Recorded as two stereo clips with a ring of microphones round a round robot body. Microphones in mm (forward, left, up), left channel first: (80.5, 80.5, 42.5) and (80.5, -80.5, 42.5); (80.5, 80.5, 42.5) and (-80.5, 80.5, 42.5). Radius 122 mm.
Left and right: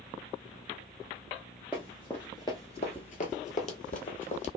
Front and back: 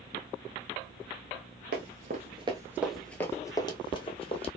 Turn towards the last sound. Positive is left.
turn(degrees=50)